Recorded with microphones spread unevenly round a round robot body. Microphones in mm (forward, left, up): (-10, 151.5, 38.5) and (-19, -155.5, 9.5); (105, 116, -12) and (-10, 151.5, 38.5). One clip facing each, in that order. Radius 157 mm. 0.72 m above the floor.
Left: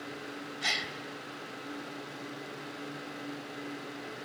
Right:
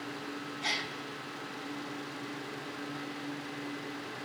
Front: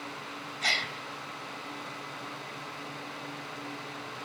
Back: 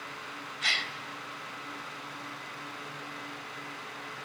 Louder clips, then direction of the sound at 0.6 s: Right 1 dB, front 3 dB; 25° left.